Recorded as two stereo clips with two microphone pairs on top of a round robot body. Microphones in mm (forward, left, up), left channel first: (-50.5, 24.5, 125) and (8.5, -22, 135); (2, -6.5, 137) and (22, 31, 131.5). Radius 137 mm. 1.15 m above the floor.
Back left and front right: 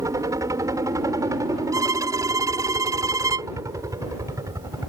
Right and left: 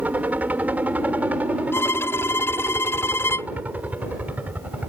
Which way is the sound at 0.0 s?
10° left.